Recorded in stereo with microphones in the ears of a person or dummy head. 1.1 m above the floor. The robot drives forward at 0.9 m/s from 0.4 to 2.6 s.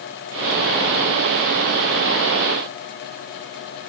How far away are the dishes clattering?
I don't hear dishes clattering.